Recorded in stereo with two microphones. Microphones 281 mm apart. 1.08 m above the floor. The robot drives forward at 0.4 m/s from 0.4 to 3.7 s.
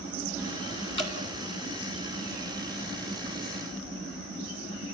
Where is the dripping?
45° right (ahead or behind), 3 m.